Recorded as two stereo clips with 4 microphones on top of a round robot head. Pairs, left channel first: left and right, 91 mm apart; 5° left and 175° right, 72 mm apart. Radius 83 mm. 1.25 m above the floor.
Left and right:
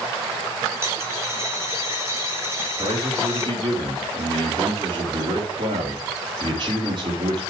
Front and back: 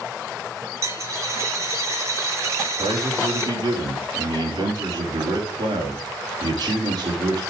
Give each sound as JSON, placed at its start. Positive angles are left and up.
{"t": 0.8, "sound": "a dropped coin", "azimuth_deg": -145, "distance_m": 1.0}
{"t": 2.8, "sound": "a man speaking", "azimuth_deg": -135, "distance_m": 3.0}